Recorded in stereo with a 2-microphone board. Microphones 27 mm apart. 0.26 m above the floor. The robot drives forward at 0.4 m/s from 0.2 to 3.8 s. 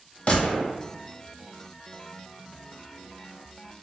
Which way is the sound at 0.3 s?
45° left (ahead or behind).